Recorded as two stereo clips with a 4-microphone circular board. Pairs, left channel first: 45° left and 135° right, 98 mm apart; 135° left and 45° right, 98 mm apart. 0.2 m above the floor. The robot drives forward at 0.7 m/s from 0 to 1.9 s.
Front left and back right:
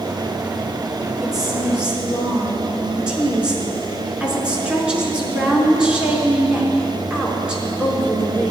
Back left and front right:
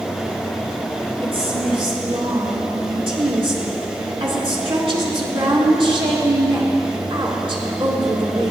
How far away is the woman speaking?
About 3.5 m.